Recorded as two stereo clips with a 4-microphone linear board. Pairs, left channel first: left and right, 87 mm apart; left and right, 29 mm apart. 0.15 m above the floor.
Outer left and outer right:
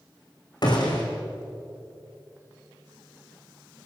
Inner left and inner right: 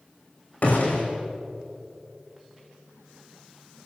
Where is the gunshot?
55° left (ahead or behind), 4.5 m.